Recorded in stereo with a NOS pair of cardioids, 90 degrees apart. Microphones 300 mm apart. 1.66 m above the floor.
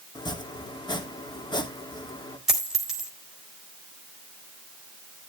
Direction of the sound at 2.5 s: Straight ahead.